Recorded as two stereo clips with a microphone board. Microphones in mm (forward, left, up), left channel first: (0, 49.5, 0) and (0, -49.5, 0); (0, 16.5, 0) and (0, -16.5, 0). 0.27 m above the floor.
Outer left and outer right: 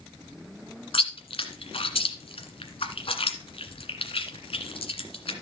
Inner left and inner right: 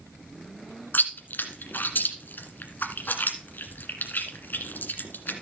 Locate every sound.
0.9 s chewing: 70° left (ahead or behind), 1.5 m